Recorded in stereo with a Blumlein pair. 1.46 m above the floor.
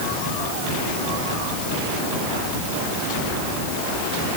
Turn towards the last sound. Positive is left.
No sound to turn to.